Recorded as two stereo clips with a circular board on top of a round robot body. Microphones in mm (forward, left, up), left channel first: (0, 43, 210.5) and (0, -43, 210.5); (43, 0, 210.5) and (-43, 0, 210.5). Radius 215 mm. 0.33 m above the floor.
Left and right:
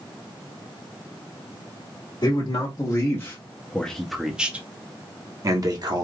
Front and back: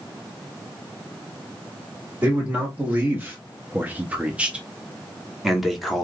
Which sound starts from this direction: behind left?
A man speaking, at 2.2 s.